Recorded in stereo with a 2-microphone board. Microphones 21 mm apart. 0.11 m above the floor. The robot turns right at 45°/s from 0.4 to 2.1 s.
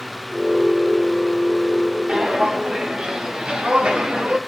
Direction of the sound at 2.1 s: 75° right (ahead or behind).